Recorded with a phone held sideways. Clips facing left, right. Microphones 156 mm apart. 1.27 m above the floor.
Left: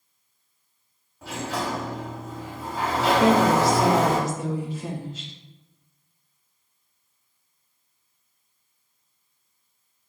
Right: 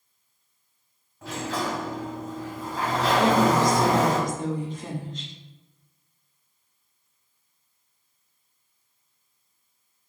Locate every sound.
1.2 s a sliding door: 10° left (ahead or behind), 1.9 m
3.2 s a woman speaking: 5° left (ahead or behind), 0.8 m